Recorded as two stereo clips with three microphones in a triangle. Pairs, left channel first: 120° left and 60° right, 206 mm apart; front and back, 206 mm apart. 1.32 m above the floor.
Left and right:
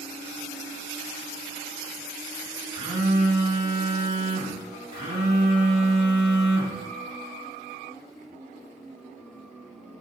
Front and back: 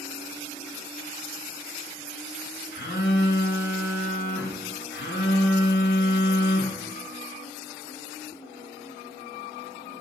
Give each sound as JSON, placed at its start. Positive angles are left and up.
{"t": 2.7, "sound": "a phone buzzing", "azimuth_deg": 0, "distance_m": 2.0}